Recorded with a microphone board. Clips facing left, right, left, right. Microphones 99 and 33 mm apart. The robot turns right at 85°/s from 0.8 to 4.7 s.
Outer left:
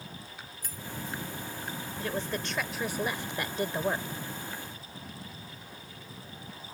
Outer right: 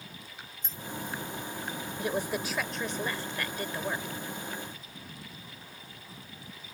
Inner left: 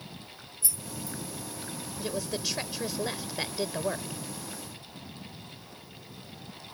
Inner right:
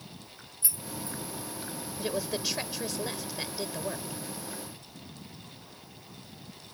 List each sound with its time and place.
0.6 s keys jangling: 25° right (ahead or behind); by 1.2 s 55° right (ahead or behind)
2.0 s a woman speaking: 20° right (ahead or behind); by 4.2 s 15° left (ahead or behind)